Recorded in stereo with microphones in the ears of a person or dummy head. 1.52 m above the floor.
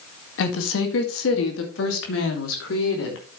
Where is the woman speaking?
80° left, 1.9 m; by 3.4 s 75° left (ahead or behind), 3.5 m.